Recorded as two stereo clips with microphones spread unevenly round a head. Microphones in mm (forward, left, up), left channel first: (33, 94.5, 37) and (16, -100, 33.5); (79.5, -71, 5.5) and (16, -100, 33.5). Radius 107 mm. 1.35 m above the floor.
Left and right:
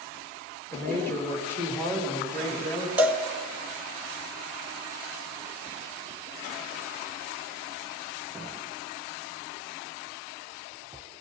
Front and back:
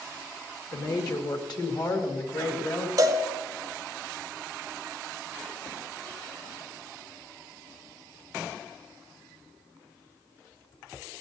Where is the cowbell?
Straight behind, 0.9 m.